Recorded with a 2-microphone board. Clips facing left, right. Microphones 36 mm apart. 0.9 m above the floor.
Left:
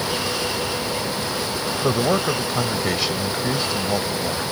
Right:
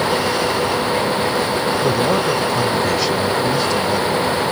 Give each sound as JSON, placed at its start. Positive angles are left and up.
{"t": 1.8, "sound": "a man speaking", "side_deg": 10}